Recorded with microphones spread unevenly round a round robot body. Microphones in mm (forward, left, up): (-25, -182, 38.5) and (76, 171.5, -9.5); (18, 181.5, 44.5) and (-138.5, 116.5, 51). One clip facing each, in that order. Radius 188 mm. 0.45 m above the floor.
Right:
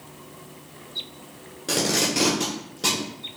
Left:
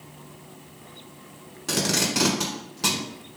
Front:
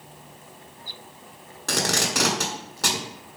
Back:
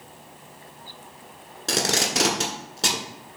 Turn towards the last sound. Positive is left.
turn(degrees=140)